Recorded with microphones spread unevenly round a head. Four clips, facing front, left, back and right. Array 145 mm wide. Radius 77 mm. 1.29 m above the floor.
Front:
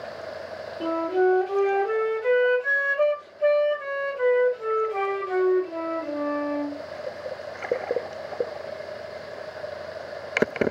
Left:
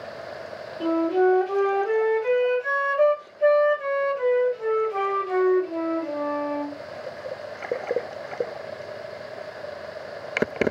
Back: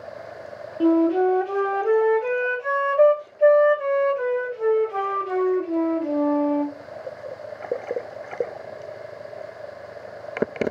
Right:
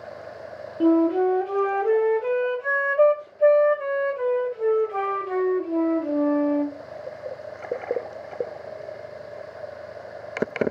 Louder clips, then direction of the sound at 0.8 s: Right 2 dB, back 5 dB; 135° right.